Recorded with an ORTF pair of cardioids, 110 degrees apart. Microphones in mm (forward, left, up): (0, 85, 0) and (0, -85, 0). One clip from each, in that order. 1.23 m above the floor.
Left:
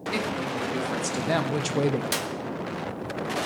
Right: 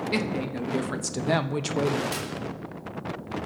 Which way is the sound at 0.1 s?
25° right.